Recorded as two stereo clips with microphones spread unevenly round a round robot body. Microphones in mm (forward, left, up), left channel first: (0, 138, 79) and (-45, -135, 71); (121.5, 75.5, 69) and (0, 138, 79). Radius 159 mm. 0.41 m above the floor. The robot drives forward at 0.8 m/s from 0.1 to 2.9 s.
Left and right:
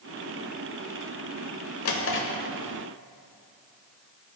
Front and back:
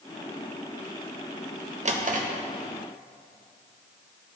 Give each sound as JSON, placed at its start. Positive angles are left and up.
{"t": 1.9, "sound": "a drawer", "azimuth_deg": 115, "distance_m": 1.0}